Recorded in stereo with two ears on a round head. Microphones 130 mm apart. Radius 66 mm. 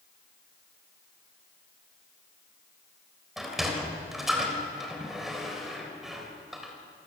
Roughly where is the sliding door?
Centre.